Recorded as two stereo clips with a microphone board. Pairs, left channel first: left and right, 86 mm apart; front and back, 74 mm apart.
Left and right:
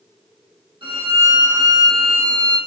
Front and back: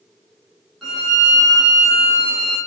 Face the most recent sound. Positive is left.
turn(degrees=-90)